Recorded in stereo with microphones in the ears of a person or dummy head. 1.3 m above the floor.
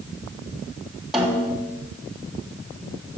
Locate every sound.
1.1 s a snare drum: 5° right (ahead or behind), 3 m